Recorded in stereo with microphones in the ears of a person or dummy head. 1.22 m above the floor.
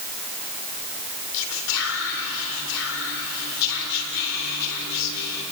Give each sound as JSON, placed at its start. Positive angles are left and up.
{"t": 1.3, "sound": "whispering", "side_deg": 85, "distance_m": 3.0}